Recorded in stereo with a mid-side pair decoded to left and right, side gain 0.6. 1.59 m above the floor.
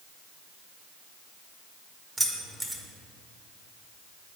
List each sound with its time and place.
2.2 s keys jangling: 10° right, 1.7 m